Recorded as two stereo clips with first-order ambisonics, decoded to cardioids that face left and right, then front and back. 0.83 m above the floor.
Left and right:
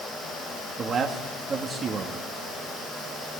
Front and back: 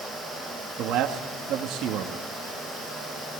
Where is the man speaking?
155° right, 1.6 m.